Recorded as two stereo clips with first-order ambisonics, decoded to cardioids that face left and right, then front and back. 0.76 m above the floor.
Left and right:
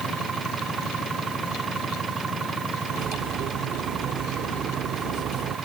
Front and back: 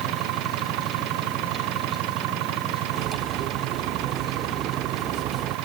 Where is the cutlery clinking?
135° right.